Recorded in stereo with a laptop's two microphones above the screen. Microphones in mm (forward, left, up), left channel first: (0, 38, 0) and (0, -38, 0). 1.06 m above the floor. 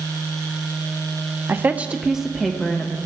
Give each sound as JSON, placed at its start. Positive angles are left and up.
{"t": 1.5, "sound": "a woman speaking", "side_deg": -25, "distance_m": 0.5}